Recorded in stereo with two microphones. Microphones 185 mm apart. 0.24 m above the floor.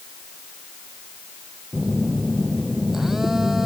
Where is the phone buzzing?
Centre (ahead or behind).